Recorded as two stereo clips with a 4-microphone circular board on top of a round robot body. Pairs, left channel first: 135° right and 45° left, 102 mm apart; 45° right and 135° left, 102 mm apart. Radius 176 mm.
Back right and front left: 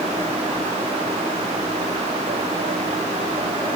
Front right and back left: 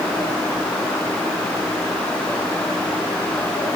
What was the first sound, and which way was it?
Only background noise.